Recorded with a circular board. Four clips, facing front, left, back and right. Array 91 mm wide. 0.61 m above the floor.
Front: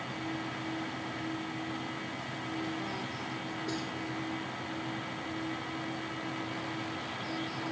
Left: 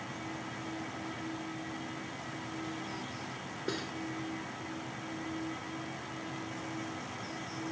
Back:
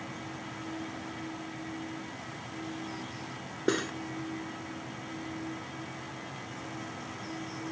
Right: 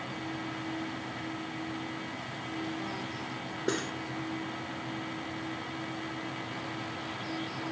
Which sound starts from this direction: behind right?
Cutlery clinking, at 3.7 s.